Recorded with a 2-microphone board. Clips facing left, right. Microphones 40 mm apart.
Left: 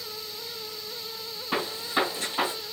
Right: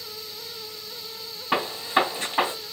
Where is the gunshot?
30° right (ahead or behind), 1.8 m.